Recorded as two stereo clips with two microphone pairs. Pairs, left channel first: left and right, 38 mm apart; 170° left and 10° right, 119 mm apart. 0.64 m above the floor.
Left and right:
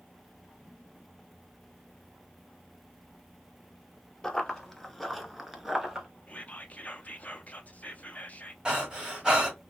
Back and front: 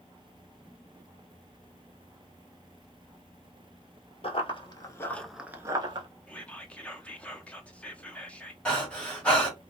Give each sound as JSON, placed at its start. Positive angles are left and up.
{"t": 4.2, "sound": "running footsteps", "azimuth_deg": 165, "distance_m": 0.9}
{"t": 6.3, "sound": "whispering", "azimuth_deg": 95, "distance_m": 0.7}
{"t": 8.7, "sound": "breathing", "azimuth_deg": -125, "distance_m": 1.2}